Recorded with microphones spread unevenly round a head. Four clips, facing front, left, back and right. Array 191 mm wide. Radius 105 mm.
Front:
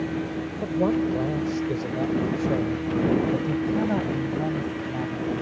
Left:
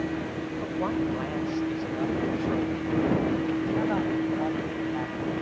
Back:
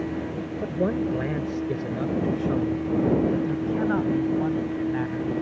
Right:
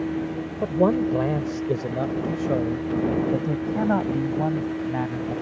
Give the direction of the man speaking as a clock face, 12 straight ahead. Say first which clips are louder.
Right 9 dB, front 2 dB; 4 o'clock.